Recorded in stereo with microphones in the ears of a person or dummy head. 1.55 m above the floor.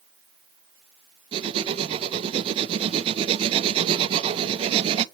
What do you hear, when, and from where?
1.3 s writing: 20° right (ahead or behind), 0.7 m